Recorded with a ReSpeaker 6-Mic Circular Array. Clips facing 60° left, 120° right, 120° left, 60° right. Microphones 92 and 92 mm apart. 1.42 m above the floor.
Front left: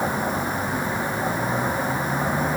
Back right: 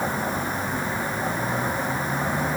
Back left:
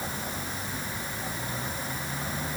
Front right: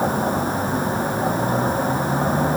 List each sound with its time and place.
0.0 s a vehicle: 20° right